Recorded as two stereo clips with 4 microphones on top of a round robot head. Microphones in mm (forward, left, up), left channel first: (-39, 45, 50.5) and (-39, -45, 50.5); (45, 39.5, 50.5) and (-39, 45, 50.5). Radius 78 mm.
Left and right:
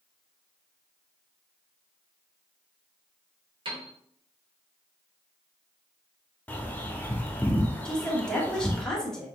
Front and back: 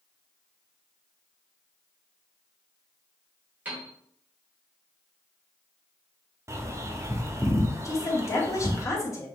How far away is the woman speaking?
About 1.5 m.